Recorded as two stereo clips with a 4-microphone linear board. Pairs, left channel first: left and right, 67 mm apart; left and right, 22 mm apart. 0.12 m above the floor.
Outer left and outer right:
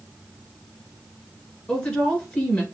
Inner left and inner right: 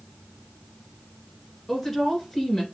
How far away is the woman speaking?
About 2 m.